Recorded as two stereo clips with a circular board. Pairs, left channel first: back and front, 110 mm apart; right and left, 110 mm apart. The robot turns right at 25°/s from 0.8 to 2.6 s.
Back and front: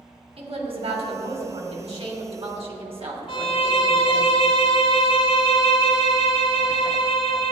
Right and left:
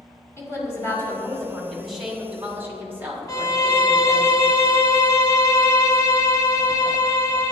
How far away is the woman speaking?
About 2.5 m.